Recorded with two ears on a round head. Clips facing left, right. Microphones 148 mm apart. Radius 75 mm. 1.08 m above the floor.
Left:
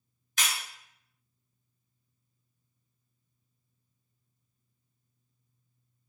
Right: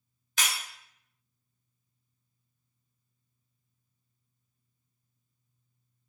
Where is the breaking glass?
60° right (ahead or behind), 1.7 m.